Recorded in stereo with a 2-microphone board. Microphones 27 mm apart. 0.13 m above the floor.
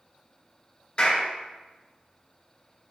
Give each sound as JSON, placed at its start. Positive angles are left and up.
{"t": 1.0, "sound": "a clap", "side_deg": 35, "distance_m": 1.8}